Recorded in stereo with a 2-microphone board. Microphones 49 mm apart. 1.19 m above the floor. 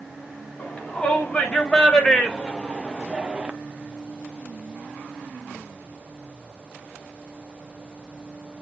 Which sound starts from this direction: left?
A shout, at 0.6 s.